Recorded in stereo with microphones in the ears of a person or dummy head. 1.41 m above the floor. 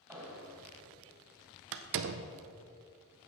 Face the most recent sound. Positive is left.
turn(degrees=-55)  # may be behind; listen again after turning